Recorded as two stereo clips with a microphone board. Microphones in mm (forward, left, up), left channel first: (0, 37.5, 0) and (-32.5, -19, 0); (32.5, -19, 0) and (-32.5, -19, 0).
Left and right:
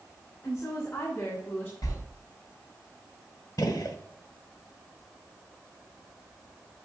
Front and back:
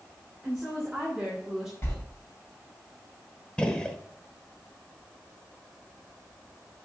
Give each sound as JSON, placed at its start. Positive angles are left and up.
{"t": 0.4, "sound": "a woman speaking", "azimuth_deg": 95, "distance_m": 2.5}
{"t": 1.8, "sound": "a sliding door", "azimuth_deg": 50, "distance_m": 3.0}
{"t": 3.6, "sound": "a gunshot", "azimuth_deg": 75, "distance_m": 0.9}